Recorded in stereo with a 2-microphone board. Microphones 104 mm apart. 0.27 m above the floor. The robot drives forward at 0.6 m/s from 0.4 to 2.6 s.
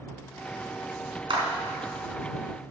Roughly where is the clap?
Right.